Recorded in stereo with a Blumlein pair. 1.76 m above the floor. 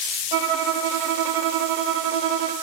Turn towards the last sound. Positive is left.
turn(degrees=-45)